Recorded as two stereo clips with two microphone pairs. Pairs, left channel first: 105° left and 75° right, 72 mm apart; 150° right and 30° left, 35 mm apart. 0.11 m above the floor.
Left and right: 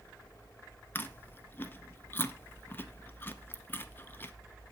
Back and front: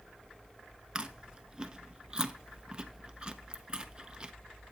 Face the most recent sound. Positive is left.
turn(degrees=80)